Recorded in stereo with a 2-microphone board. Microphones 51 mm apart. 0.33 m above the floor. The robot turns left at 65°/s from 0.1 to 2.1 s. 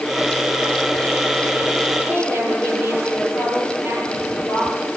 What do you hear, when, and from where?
2.1 s a woman speaking: 50° right (ahead or behind), 9.5 m